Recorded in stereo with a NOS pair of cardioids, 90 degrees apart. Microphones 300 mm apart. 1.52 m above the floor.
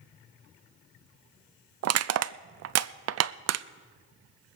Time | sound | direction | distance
1.8 | crushing | 55° right | 0.5 m